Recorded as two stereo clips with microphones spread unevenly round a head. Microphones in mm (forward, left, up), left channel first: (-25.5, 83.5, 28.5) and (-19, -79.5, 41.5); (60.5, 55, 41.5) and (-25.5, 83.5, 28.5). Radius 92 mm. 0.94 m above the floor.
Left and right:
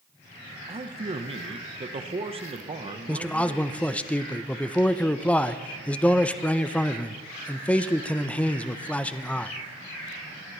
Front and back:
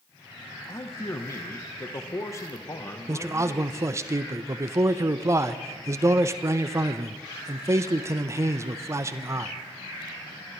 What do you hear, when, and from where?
0.7 s a man speaking: 60° right, 0.8 m
3.1 s a man speaking: 165° left, 0.6 m